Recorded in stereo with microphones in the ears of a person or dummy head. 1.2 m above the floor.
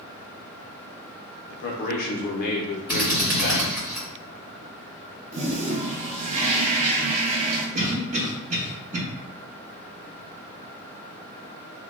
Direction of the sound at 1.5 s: 50° left (ahead or behind).